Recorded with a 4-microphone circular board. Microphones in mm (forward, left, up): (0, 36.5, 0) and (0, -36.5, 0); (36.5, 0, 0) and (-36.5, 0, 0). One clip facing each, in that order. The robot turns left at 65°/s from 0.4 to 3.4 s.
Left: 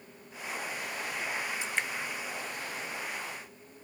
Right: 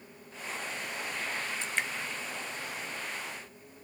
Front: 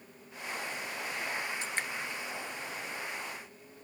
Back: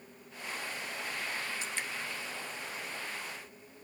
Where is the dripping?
20° left, 1.1 m; by 1.9 s straight ahead, 1.1 m.